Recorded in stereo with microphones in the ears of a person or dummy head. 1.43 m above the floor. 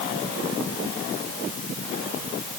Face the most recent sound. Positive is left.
No sound to turn to.